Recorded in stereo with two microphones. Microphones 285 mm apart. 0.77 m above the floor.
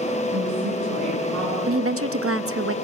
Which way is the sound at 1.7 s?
50° right (ahead or behind).